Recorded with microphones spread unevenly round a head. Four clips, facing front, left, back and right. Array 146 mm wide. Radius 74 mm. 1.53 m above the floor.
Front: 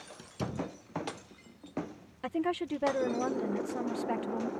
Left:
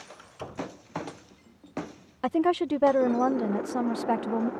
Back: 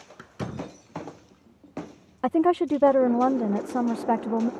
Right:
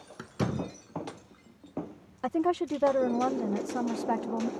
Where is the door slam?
105° right.